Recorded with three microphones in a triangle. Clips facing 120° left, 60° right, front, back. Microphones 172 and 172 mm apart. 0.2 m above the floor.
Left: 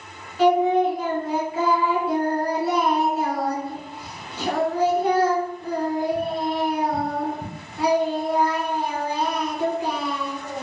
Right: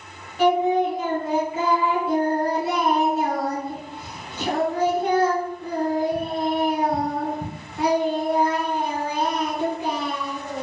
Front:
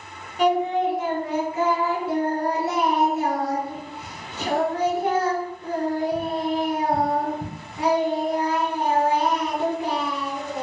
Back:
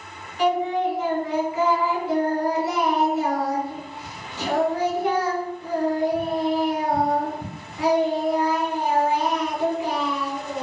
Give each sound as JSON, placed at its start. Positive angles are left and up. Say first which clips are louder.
{"t": 0.4, "sound": "singing", "louder": "left 1 dB, front 1 dB", "azimuth_deg": -5, "distance_m": 1.3}